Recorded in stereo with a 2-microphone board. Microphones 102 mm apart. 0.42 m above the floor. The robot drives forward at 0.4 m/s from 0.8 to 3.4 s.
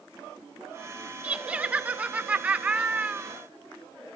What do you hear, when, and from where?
1.2 s laughter: 10° right (ahead or behind), 1.1 m